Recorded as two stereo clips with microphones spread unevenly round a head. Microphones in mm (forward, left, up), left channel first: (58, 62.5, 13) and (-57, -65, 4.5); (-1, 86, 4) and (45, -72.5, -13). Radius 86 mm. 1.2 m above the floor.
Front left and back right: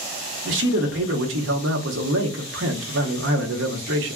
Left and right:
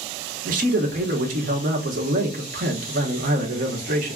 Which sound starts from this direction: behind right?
A man speaking, at 0.5 s.